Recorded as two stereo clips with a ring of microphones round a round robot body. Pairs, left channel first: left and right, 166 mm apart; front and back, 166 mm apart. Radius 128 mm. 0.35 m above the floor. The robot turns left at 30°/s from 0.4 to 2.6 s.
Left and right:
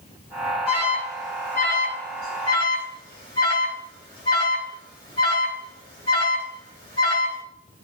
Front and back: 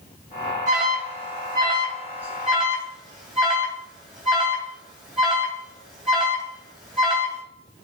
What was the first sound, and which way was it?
An alarm, 150° left.